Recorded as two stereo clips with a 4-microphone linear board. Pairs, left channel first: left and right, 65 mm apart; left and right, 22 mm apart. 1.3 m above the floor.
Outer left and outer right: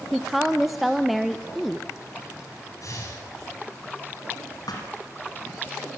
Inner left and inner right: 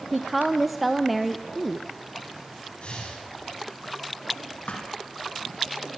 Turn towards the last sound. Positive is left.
turn(degrees=75)  # may be behind; listen again after turning